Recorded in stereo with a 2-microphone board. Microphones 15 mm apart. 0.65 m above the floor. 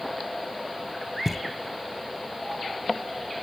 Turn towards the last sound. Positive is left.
turn(degrees=-25)  # may be behind; listen again after turning